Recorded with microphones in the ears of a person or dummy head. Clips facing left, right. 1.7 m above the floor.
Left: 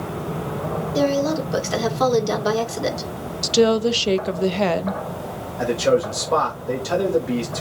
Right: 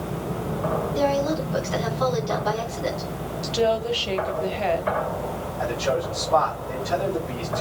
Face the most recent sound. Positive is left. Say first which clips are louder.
# left 7 dB
turn(degrees=75)  # may be behind; listen again after turning